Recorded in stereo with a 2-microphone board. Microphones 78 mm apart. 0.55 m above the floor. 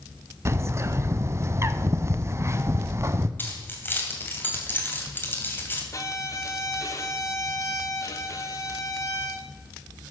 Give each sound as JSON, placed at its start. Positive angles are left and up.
{"t": 0.5, "sound": "a bird", "side_deg": -35, "distance_m": 0.6}
{"t": 3.4, "sound": "keys jangling", "side_deg": 25, "distance_m": 2.0}
{"t": 5.9, "sound": "a violin", "side_deg": 40, "distance_m": 1.4}